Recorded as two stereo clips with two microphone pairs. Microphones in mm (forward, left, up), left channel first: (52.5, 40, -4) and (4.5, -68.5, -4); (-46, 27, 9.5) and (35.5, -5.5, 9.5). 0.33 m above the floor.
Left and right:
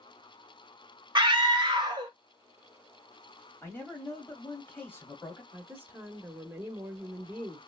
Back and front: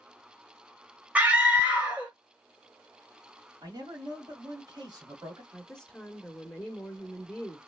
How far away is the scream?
About 1.3 m.